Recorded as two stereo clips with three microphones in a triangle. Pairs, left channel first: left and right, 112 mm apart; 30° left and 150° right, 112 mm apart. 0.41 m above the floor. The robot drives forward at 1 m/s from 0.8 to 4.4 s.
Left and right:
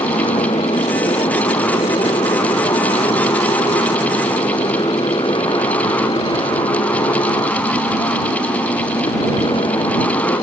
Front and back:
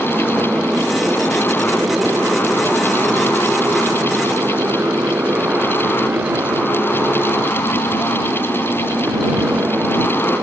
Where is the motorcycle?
125° left; by 10.4 s 135° left.